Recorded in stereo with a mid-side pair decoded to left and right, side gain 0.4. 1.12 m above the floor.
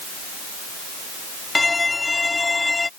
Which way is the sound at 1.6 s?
25° left.